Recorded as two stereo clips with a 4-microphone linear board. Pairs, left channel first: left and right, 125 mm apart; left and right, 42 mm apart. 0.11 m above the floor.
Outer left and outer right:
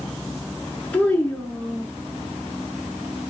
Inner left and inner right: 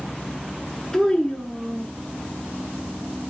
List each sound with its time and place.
0.9 s a child speaking: 15° left (ahead or behind), 0.7 m